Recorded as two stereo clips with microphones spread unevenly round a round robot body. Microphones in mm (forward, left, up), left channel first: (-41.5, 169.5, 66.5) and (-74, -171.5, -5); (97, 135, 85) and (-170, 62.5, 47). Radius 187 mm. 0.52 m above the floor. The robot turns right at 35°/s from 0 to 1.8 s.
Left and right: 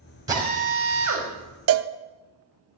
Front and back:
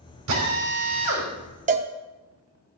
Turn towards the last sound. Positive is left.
turn(degrees=-110)